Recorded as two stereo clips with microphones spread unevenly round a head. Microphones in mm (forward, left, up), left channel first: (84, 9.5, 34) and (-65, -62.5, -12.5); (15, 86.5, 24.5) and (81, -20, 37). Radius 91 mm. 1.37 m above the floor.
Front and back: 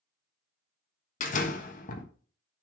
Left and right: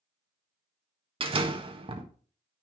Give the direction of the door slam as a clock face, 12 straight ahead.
12 o'clock.